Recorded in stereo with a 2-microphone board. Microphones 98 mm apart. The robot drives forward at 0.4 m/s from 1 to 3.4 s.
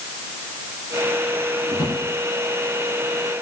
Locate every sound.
1.7 s a drawer: 40° left (ahead or behind), 5.5 m